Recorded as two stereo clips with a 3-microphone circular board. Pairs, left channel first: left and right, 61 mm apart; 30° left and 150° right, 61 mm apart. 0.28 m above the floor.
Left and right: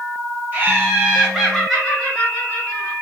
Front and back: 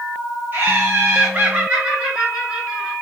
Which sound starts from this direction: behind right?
Laughter, at 0.5 s.